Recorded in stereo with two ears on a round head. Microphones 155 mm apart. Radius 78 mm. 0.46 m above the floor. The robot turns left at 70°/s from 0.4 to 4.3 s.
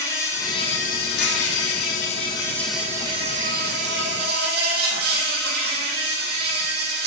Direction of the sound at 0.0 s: 160° left.